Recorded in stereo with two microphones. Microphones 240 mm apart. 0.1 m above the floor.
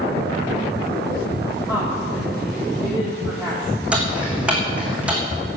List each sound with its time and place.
1.7 s a woman speaking: 5° left (ahead or behind), 5 m
3.9 s ticking: 5° right (ahead or behind), 3 m